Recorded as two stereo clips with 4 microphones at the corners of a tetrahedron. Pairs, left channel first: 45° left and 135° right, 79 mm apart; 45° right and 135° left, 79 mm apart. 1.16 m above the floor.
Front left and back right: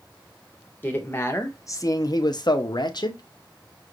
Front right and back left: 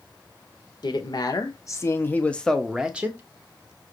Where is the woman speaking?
20° right, 1.2 m; by 3.2 s 70° left, 0.9 m.